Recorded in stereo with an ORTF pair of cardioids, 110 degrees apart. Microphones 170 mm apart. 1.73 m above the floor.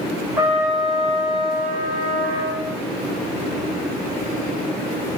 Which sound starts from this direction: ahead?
A trumpet, at 0.4 s.